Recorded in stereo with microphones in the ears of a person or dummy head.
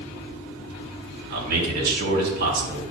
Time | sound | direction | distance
1.3 | a man speaking | 60° right (ahead or behind) | 4.5 m